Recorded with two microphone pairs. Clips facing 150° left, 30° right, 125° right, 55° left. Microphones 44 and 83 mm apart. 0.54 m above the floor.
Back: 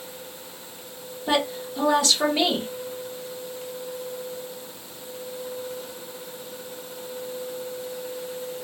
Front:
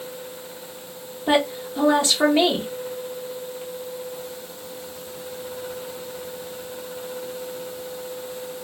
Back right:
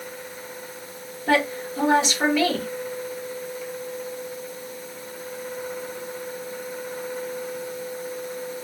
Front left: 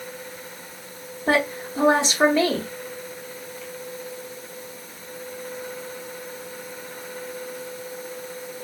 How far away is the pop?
No pop in this recording.